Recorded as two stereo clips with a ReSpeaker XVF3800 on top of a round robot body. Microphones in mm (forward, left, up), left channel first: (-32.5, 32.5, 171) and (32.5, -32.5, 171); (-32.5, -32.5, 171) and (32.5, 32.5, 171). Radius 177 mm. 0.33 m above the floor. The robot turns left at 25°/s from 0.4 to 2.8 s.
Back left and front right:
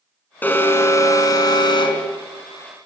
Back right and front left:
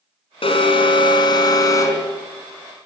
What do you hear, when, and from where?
0.4 s an alarm: 155° right, 4.5 m; by 2.1 s 165° left, 4.5 m